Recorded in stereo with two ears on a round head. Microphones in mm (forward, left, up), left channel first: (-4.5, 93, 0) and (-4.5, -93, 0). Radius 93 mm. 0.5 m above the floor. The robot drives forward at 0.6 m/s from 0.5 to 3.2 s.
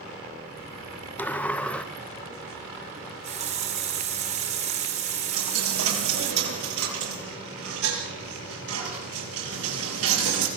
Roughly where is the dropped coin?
Right.